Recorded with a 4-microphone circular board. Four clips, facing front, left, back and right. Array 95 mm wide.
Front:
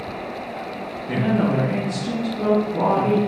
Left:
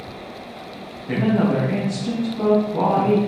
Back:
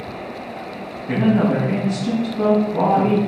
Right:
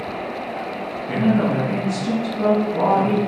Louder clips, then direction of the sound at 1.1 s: Even, back 3 dB; 145° left.